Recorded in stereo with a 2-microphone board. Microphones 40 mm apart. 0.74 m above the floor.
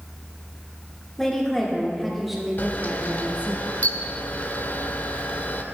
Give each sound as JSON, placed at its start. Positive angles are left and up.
{"t": 1.2, "sound": "a woman speaking", "side_deg": 10, "distance_m": 2.5}
{"t": 2.6, "sound": "a camera shutter", "side_deg": 50, "distance_m": 0.8}